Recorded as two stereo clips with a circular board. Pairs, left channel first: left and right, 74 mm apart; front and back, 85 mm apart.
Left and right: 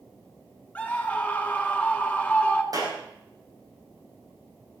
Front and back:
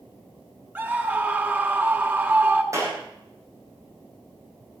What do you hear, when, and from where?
0.8 s a scream: 140° left, 1.8 m
2.7 s a clap: 125° right, 6 m